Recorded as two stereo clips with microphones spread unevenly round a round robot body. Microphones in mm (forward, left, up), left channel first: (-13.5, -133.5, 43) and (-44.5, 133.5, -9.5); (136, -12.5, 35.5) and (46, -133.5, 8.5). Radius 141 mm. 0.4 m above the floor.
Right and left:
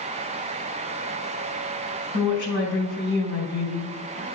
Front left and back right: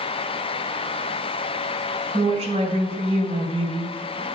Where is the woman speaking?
90° right, 2.5 m.